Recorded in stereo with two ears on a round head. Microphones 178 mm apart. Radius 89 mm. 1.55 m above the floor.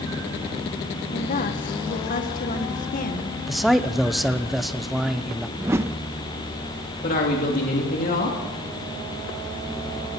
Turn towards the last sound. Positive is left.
turn(degrees=45)  # may be behind; listen again after turning